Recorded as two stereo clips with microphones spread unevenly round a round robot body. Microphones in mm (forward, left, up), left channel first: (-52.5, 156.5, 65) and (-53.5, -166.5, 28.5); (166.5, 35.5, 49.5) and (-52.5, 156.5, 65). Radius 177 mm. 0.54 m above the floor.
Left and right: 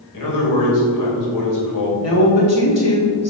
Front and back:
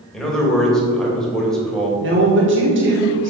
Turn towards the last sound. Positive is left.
turn(degrees=125)